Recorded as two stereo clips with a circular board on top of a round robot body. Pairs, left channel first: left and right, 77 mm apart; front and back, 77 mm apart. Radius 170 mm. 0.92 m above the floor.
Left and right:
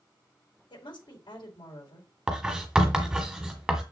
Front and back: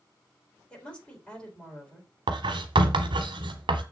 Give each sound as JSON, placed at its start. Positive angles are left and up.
{"t": 0.7, "sound": "a woman speaking", "azimuth_deg": 75, "distance_m": 4.0}
{"t": 2.3, "sound": "writing", "azimuth_deg": -175, "distance_m": 0.8}